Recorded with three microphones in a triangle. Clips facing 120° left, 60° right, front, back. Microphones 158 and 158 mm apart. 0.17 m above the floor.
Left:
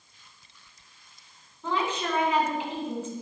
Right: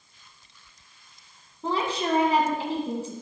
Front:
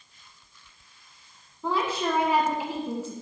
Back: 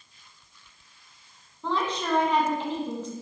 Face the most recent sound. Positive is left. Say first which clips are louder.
# right 2 dB, front 1 dB
turn(degrees=-80)